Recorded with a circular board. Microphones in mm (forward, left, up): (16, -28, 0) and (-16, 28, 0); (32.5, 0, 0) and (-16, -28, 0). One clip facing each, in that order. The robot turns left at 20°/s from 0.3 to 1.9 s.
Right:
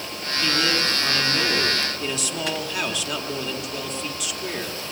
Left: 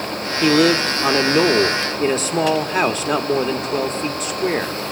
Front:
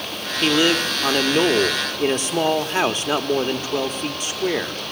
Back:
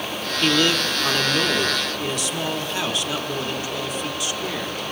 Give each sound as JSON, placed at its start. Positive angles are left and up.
{"t": 0.4, "sound": "a man speaking", "azimuth_deg": 105, "distance_m": 1.1}